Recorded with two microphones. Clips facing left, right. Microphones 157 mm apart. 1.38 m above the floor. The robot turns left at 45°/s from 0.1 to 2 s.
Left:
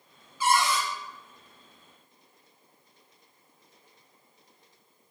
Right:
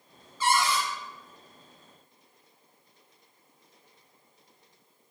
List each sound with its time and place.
0.4 s a cupboard door: 10° left (ahead or behind), 1.4 m; by 0.8 s 30° left (ahead or behind), 1.4 m